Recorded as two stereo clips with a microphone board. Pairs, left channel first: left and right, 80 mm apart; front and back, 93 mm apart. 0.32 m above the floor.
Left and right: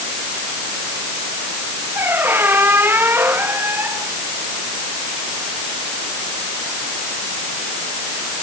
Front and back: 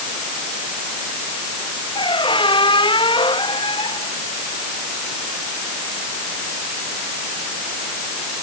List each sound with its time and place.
1.9 s a squeak: 25° right